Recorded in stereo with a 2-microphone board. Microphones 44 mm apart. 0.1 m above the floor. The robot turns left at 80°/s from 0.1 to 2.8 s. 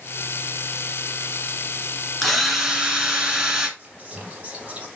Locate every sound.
2.2 s a drill: 5° left (ahead or behind), 1.7 m; by 3.7 s 15° right (ahead or behind), 1.7 m
3.8 s whispering: 25° right (ahead or behind), 2.5 m